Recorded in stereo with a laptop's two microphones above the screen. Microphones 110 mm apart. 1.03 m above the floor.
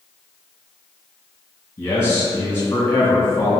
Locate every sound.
1.8 s a man speaking: 20° left (ahead or behind), 1.5 m